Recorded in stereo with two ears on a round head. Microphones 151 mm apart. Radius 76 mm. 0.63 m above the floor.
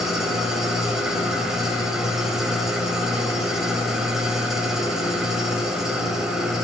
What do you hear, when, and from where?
0.0 s an engine running: 5° right (ahead or behind), 0.9 m